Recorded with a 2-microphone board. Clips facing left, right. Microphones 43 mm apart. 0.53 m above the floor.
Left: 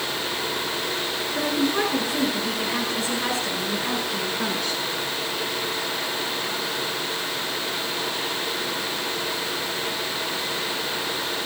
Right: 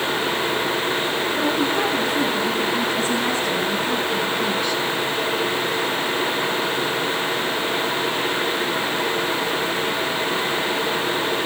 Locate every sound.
1.4 s a woman speaking: 85° left, 8.5 m; by 4.8 s 75° left (ahead or behind), 6.5 m